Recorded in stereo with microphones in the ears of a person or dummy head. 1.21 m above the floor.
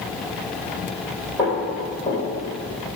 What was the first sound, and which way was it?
Footsteps, 15° left (ahead or behind).